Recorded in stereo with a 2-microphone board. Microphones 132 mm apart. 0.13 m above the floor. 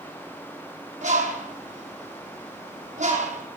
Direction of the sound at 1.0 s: 70° right (ahead or behind).